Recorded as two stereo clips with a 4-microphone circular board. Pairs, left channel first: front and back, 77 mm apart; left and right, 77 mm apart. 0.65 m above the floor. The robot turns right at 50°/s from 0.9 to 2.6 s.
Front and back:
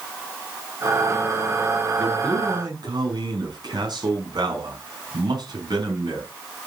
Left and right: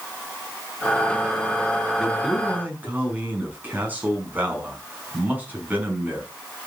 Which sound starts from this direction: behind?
A man speaking, at 1.9 s.